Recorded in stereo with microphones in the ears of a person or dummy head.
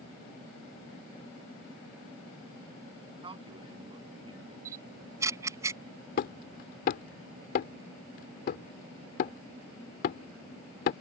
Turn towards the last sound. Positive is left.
turn(degrees=50)  # may be behind; listen again after turning